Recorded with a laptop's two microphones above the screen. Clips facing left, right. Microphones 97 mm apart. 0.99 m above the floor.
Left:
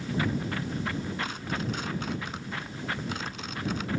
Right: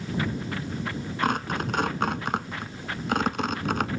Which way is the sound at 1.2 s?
60° right (ahead or behind).